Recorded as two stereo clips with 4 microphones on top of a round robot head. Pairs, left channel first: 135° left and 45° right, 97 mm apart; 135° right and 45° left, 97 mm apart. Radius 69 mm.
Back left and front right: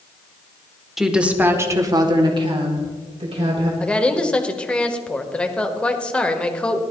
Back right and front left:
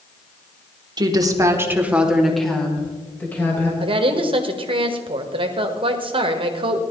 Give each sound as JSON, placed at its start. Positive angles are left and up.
{"t": 1.0, "sound": "a woman speaking", "azimuth_deg": 40, "distance_m": 1.7}
{"t": 3.8, "sound": "a woman speaking", "azimuth_deg": 55, "distance_m": 1.5}